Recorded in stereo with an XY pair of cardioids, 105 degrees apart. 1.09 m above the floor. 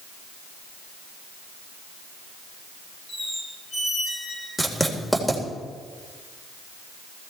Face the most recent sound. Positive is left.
turn(degrees=5)